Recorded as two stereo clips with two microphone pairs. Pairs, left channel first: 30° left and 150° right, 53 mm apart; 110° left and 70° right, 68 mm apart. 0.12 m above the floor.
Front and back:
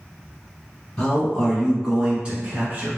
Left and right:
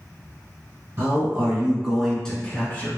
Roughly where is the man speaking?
Ahead right.